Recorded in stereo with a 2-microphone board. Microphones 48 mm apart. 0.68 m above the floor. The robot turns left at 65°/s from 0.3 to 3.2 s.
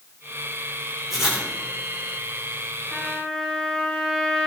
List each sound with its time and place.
1.1 s writing: 5° right (ahead or behind), 2 m; by 1.5 s 25° right (ahead or behind), 2 m
2.9 s a trumpet: 5° right (ahead or behind), 3.5 m; by 4.5 s 15° left (ahead or behind), 3.5 m